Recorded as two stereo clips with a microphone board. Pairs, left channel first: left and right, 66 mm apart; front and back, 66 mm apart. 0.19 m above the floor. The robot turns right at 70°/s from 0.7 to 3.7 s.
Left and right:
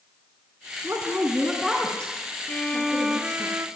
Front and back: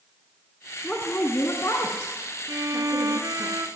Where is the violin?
150° left, 0.7 m; by 3.7 s 130° right, 0.7 m.